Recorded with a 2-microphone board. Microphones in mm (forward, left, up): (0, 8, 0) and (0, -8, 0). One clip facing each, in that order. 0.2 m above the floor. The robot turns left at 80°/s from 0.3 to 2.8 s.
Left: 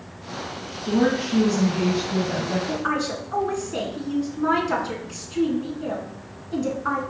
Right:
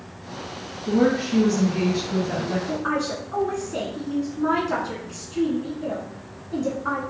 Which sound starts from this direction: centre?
A woman speaking, at 0.9 s.